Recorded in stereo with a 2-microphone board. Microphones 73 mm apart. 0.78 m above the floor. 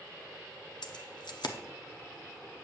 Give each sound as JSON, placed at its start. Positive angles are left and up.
{"t": 0.8, "sound": "keys jangling", "side_deg": 75, "distance_m": 0.7}